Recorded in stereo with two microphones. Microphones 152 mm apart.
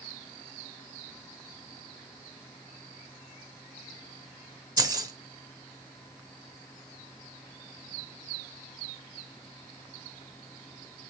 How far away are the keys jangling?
About 0.7 m.